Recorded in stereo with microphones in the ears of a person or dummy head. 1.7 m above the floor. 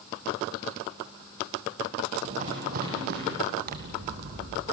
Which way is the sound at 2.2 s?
40° right (ahead or behind).